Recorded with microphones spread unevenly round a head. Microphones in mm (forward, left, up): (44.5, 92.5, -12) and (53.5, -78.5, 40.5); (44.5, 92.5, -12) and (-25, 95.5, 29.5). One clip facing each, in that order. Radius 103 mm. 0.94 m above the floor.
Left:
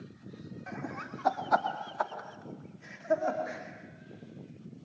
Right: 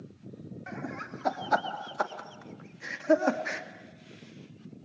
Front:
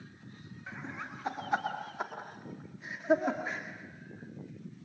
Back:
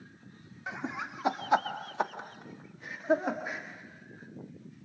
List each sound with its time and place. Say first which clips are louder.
0.7 s laughter: right 1 dB, back 5 dB; 175° right, 2.5 m; by 3.6 s 85° right, 2 m